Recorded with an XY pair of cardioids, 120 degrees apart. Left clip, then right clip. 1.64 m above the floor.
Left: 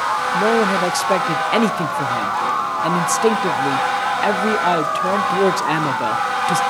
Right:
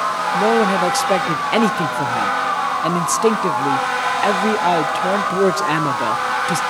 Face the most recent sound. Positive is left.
turn(degrees=-5)